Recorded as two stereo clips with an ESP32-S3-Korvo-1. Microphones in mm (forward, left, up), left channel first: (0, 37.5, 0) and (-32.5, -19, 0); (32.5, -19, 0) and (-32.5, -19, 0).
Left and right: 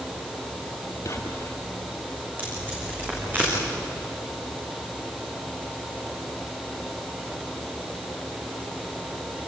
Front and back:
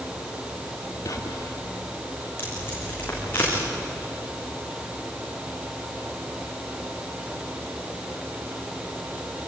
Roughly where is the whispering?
Ahead left.